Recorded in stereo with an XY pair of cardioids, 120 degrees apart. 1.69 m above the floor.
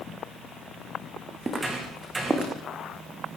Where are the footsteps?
25° right, 6 m.